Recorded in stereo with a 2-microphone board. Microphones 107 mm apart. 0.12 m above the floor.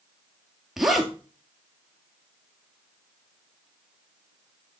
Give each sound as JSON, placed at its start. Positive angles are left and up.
{"t": 0.8, "sound": "a zipper", "side_deg": -5, "distance_m": 1.6}